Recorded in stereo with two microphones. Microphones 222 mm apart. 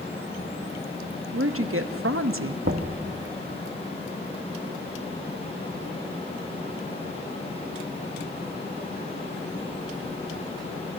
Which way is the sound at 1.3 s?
75° right (ahead or behind).